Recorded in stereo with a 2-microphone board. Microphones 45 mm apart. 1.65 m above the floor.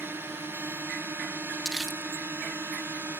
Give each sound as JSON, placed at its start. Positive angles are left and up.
{"t": 0.0, "sound": "a drone", "side_deg": -60}
{"t": 1.6, "sound": "crumpling", "side_deg": -5}